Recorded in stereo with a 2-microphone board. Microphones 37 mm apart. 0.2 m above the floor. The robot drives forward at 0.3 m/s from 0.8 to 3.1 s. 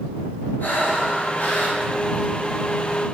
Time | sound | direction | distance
0.6 | breathing | 55° left (ahead or behind) | 1.3 m